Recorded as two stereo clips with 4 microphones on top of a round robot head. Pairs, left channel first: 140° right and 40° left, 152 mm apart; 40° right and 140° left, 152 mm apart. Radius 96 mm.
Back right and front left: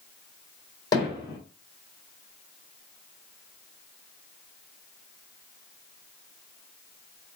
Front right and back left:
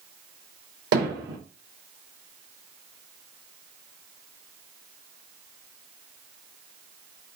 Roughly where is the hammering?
Behind left.